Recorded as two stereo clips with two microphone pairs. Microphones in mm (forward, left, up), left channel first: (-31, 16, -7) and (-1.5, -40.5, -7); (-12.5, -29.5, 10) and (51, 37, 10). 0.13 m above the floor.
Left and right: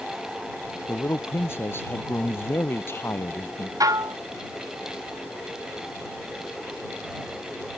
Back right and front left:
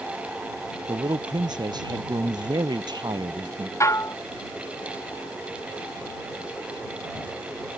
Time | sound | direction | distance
0.9 | a man speaking | 70° left | ?
3.8 | dishes clattering | 80° right | ?